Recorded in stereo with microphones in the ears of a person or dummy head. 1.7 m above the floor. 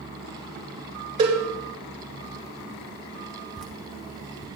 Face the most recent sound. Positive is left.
turn(degrees=5)  # may be behind; listen again after turning